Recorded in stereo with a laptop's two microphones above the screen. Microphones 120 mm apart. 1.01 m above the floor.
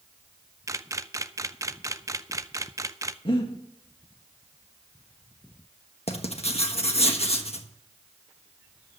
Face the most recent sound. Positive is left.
turn(degrees=60)  # may be behind; listen again after turning